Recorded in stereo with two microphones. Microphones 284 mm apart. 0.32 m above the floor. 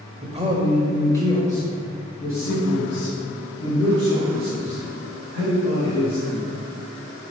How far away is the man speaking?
About 1.1 m.